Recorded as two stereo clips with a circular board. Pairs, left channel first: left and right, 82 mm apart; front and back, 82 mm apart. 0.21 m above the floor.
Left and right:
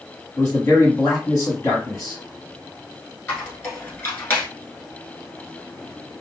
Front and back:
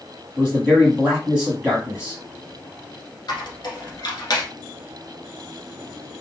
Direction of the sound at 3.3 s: 25° left.